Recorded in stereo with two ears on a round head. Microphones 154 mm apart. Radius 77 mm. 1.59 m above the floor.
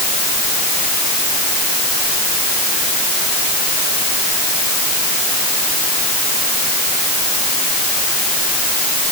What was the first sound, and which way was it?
Only background noise.